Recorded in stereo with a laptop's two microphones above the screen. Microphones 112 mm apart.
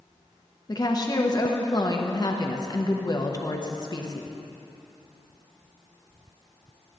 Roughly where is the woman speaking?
Left.